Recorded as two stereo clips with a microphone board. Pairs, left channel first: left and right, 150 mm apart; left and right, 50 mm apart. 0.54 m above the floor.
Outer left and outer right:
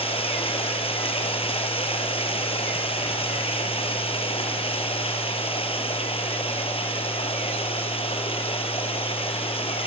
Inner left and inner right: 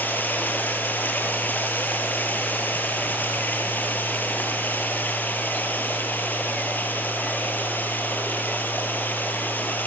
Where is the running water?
40° left (ahead or behind), 3.5 m.